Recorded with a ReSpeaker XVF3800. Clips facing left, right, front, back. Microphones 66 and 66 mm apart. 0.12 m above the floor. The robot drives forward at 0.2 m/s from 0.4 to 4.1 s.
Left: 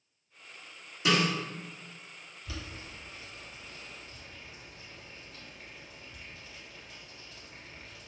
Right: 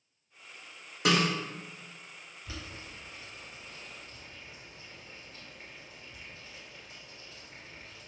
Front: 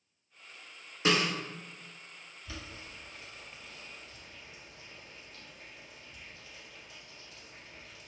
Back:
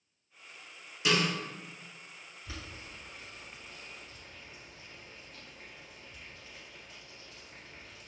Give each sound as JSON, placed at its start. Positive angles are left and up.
{"t": 1.1, "sound": "a snare drum", "azimuth_deg": -55, "distance_m": 1.3}
{"t": 2.5, "sound": "boiling", "azimuth_deg": -135, "distance_m": 2.0}